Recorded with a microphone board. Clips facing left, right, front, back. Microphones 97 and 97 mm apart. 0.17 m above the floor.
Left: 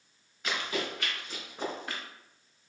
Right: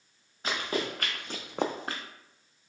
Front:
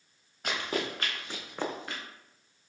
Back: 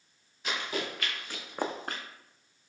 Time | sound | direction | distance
0.4 | running footsteps | 35° right | 1.5 m